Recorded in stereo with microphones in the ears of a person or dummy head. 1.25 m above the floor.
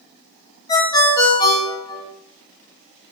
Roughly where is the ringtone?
Left.